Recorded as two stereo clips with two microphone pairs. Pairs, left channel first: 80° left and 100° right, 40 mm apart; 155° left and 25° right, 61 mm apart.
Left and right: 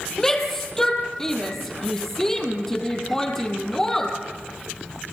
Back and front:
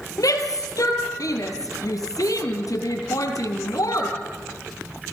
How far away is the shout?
About 3 m.